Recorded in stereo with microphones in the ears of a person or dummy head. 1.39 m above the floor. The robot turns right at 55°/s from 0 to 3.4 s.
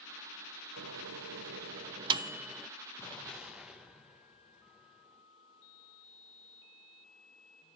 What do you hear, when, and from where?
0.8 s a microwave: 80° right, 0.7 m; by 2.7 s 5° left (ahead or behind), 0.7 m
3.0 s an explosion: 15° left (ahead or behind), 0.7 m; by 5.2 s 5° right (ahead or behind), 0.7 m